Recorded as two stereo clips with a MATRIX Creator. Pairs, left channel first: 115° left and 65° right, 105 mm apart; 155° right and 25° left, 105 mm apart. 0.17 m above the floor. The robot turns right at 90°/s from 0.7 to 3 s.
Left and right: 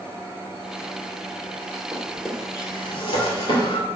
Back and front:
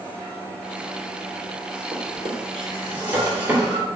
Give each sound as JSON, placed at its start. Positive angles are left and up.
{"t": 1.9, "sound": "a drawer", "azimuth_deg": -5, "distance_m": 1.5}